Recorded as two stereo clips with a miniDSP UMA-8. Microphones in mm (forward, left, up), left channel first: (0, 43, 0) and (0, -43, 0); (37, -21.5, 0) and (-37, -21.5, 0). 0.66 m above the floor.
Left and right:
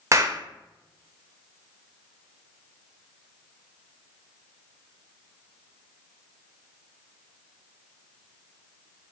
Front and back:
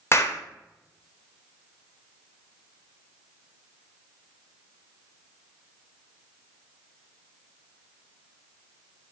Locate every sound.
0.1 s a clap: 45° right, 0.6 m